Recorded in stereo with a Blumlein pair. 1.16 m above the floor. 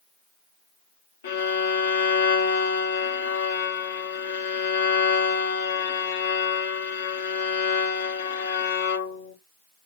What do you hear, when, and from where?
1.2 s a violin: 55° left, 0.7 m